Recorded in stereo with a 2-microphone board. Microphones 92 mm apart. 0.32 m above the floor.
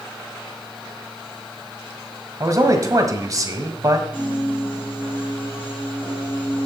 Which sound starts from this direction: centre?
A piano, at 4.1 s.